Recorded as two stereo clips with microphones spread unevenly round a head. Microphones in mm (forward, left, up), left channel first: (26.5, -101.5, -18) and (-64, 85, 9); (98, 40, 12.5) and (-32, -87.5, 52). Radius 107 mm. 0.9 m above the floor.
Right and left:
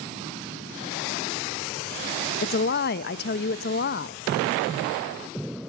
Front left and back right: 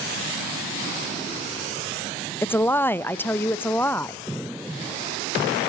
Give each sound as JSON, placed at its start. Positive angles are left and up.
{"t": 2.4, "sound": "a woman speaking", "azimuth_deg": -30, "distance_m": 0.5}